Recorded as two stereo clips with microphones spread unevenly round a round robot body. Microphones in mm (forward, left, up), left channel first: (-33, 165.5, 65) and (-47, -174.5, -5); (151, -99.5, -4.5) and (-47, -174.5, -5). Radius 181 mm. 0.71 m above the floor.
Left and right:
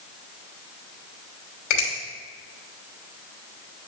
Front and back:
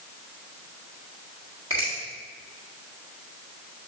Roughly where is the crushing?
I don't hear crushing.